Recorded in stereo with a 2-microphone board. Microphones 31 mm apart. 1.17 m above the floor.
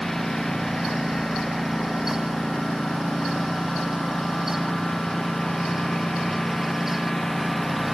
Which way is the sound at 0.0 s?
15° left (ahead or behind).